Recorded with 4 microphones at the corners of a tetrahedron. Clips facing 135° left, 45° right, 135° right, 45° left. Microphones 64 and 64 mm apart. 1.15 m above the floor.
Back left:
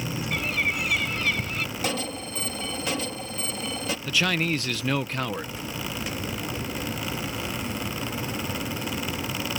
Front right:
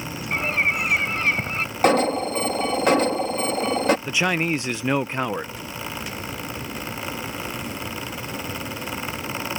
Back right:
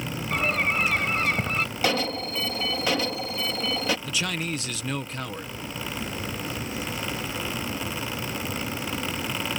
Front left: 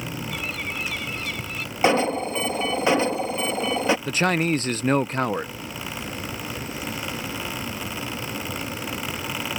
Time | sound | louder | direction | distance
0.3 | a bird | front right 5 dB, back right 10 dB | 95° right | ?
1.8 | an alarm | front right 12 dB, front left 9 dB | 15° right | ?
4.1 | a man speaking | front right 3 dB, front left 8 dB | 20° left | ?